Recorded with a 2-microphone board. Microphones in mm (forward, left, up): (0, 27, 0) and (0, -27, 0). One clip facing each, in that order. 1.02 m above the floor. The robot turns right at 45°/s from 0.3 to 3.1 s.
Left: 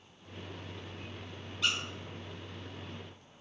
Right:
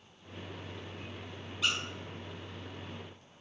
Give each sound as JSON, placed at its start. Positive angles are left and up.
{"t": 1.6, "sound": "a squeak", "side_deg": -5, "distance_m": 0.6}